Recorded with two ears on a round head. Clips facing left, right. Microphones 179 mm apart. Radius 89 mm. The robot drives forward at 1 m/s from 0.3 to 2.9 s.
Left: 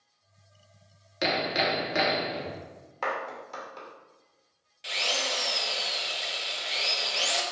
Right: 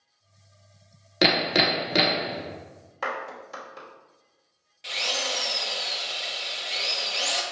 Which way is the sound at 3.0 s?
10° right (ahead or behind).